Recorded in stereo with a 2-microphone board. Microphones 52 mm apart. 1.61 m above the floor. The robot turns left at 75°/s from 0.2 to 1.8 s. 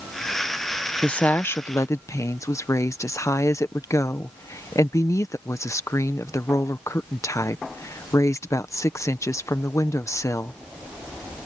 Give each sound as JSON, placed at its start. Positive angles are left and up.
{"t": 1.0, "sound": "a woman speaking", "azimuth_deg": 165}